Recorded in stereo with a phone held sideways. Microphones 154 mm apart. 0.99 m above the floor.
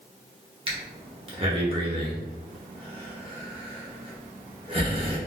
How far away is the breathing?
About 0.9 m.